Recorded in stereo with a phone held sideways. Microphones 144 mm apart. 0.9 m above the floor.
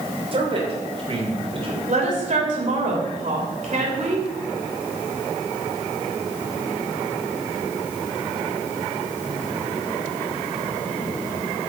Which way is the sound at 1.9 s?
55° right (ahead or behind).